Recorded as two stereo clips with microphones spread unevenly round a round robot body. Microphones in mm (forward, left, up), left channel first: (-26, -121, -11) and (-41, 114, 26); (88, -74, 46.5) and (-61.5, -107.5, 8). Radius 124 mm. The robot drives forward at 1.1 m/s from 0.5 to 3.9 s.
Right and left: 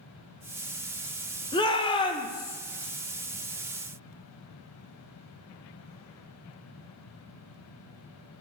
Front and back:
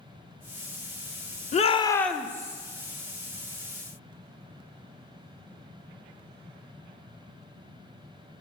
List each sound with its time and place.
1.5 s a shout: 30° right, 1.0 m; by 2.6 s 150° right, 0.9 m